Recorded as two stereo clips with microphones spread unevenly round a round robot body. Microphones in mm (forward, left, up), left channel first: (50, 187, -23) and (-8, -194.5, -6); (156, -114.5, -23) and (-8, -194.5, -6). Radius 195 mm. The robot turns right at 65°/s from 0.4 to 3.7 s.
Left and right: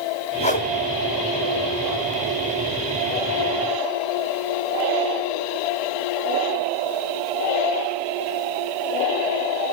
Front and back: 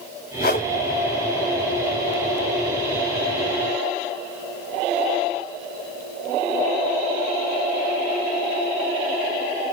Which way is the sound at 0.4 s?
10° left.